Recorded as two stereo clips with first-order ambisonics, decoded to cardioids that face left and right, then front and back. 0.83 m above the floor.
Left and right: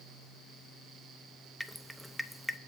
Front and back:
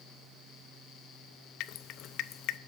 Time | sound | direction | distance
1.6 | dripping | straight ahead | 0.6 m